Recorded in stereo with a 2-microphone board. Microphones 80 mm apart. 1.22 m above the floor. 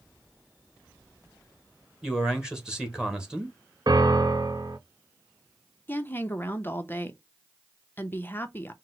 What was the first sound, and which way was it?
A man speaking, 10° right (ahead or behind).